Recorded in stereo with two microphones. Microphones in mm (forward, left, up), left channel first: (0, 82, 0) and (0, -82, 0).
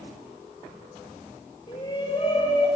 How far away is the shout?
About 7 m.